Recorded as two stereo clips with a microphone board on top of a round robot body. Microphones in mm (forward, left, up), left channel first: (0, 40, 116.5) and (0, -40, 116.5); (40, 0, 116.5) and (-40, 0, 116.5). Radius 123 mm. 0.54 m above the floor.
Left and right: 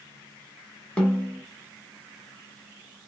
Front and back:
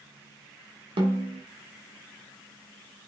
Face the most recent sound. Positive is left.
turn(degrees=170)